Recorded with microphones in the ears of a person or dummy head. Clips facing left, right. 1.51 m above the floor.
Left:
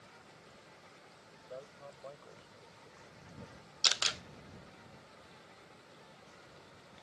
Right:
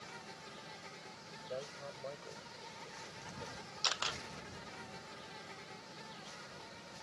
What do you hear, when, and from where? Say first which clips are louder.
0.0 s an insect: right 6 dB; 80° right
1.5 s a man speaking: right 4 dB; 30° right (ahead or behind)
3.8 s a camera shutter: left 1 dB; 20° left (ahead or behind)